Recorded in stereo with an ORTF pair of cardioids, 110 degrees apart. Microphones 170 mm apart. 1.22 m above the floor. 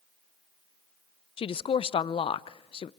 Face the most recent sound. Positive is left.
turn(degrees=35)